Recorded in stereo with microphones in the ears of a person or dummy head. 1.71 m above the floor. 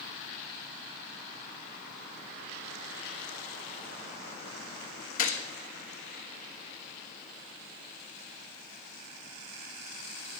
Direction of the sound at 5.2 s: 50° left (ahead or behind).